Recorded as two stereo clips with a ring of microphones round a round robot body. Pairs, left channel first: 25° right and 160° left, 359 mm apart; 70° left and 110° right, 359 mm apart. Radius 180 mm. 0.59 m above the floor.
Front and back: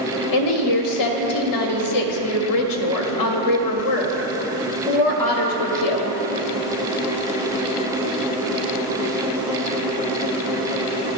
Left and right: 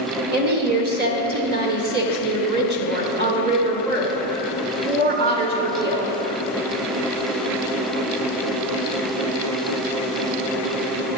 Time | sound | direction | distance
0.3 | a woman speaking | 50° right | 1.0 m